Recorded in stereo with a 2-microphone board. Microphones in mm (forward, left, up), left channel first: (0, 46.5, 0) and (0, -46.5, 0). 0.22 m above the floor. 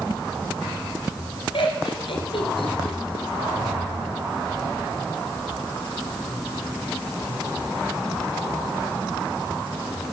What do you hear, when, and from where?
1.5 s laughter: 70° left (ahead or behind), 3.5 m